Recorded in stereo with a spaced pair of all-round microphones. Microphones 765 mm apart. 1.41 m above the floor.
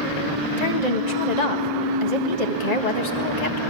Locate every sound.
0.6 s a woman speaking: 60° left (ahead or behind), 1.8 m